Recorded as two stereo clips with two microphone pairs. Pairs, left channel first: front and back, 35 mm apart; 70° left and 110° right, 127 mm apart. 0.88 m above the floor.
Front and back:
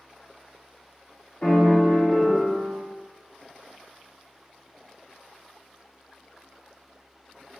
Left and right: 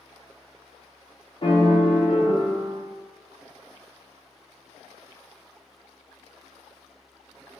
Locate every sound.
1.4 s a piano: 50° left, 0.5 m